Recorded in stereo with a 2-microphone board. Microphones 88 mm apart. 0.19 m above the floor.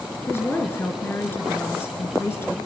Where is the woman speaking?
25° left (ahead or behind), 3 m.